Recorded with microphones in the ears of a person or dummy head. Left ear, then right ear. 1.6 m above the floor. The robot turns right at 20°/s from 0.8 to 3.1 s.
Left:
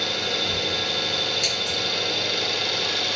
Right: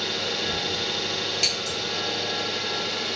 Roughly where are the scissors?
Right.